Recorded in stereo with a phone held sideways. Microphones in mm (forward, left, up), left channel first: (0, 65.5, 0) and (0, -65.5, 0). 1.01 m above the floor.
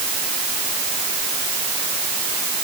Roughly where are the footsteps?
I don't hear footsteps.